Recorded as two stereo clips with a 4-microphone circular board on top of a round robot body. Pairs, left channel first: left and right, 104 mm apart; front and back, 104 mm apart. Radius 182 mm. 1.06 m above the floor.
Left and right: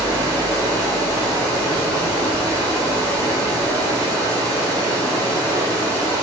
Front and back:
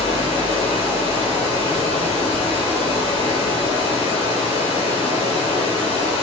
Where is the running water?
30° right, 0.8 m.